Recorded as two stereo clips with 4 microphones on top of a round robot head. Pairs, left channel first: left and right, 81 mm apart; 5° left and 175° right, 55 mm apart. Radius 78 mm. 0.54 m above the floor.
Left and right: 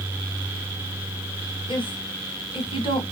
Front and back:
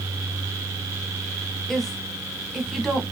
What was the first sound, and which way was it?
A woman speaking, 90° left.